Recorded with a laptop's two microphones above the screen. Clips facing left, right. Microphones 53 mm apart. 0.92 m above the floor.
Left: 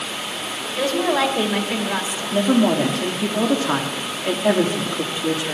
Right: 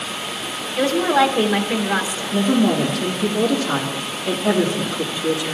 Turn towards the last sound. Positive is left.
turn(degrees=35)  # may be behind; listen again after turning